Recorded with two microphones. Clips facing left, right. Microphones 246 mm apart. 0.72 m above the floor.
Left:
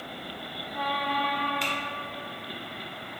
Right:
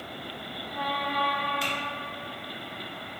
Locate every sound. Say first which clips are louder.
1.6 s typing on a keyboard: even; 5° right (ahead or behind), 0.6 m